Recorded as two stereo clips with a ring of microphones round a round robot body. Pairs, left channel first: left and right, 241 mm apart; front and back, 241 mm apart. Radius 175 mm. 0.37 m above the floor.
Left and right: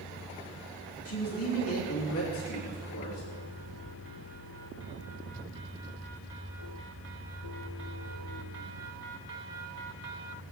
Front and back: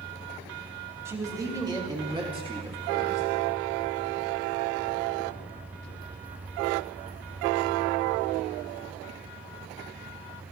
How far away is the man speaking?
About 3 m.